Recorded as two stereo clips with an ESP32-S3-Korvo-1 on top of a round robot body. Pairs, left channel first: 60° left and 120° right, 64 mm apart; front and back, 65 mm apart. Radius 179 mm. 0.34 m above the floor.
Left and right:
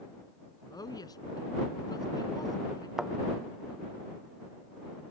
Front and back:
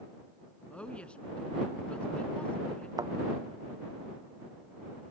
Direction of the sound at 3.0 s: 160° left.